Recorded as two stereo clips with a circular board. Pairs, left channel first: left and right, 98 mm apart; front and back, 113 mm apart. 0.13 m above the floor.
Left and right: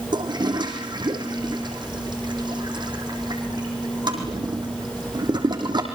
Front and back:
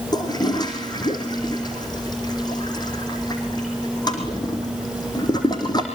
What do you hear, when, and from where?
0.1 s a toilet flushing: 50° right, 4 m